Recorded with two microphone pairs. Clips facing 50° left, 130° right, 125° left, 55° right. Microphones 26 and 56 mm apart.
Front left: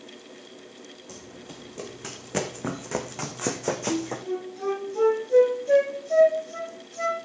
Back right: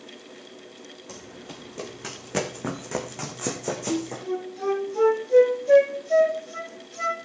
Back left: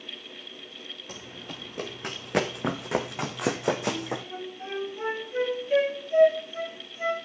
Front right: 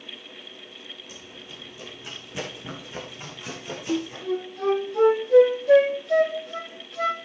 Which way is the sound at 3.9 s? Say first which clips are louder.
Back right 1 dB, front right 6 dB; 55° right.